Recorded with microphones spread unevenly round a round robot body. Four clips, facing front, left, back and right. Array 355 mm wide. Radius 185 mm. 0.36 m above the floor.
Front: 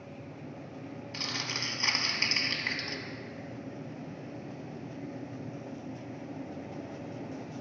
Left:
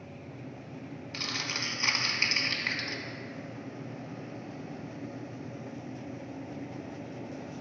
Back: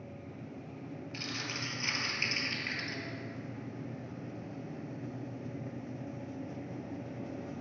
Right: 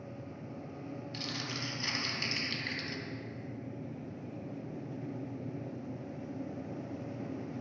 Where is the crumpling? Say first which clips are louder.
Left 6 dB, front 3 dB; 20° left, 1.0 m.